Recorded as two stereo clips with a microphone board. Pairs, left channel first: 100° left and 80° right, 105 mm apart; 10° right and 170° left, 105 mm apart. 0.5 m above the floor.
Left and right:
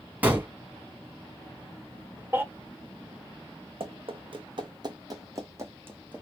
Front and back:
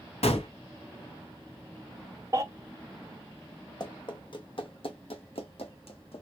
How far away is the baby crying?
About 0.8 m.